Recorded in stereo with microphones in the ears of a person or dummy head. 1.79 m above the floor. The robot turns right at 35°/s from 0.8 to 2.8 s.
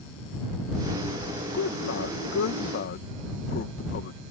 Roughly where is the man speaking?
Left.